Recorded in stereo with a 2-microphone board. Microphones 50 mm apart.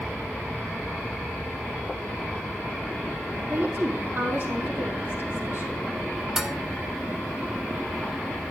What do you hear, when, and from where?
3.5 s a woman speaking: 50° right (ahead or behind), 3.5 m
6.4 s dishes clattering: 10° right (ahead or behind), 0.7 m